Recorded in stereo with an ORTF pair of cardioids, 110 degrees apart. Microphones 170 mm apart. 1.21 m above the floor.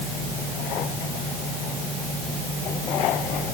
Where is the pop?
I don't hear a pop.